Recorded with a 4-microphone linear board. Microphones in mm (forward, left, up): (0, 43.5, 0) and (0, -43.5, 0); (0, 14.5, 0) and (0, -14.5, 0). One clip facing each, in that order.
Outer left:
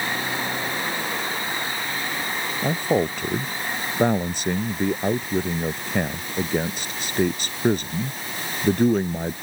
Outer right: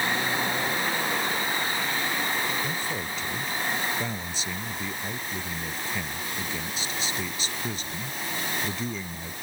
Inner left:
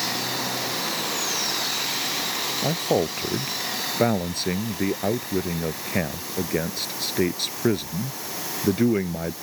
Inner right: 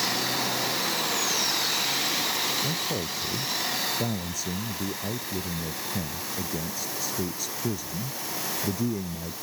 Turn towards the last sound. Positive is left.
turn(degrees=55)  # may be behind; listen again after turning